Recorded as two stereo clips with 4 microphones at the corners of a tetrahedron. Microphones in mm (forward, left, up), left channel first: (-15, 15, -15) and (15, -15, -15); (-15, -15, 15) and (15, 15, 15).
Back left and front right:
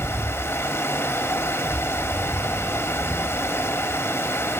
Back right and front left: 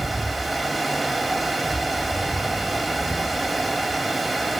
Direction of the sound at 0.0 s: 135° left.